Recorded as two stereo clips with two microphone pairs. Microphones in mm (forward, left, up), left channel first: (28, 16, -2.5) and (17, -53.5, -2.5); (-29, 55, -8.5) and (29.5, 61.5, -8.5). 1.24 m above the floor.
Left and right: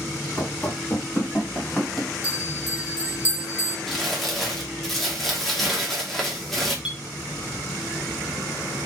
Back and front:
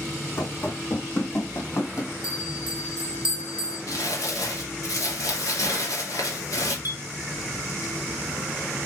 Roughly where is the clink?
Behind.